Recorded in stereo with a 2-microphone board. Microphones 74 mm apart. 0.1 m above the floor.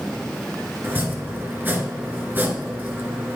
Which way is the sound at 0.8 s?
25° right (ahead or behind).